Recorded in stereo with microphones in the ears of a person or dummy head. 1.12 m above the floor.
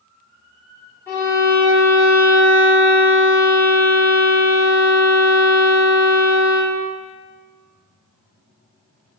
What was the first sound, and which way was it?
A violin, 15° left (ahead or behind).